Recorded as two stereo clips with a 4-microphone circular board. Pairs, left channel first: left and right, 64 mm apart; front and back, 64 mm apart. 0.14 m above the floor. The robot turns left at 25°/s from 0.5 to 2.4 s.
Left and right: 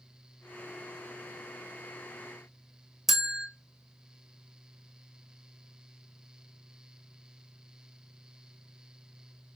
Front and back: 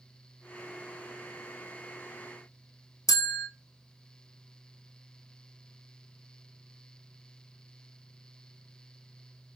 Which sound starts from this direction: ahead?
A bell, at 3.1 s.